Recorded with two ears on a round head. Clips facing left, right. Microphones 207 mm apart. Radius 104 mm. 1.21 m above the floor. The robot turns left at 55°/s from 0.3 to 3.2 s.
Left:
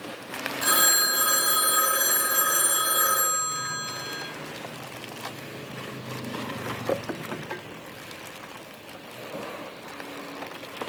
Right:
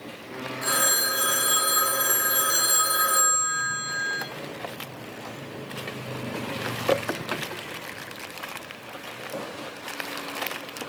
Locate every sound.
0.6 s a phone ringing: 90° left, 2.5 m; by 4.2 s 55° right, 2.5 m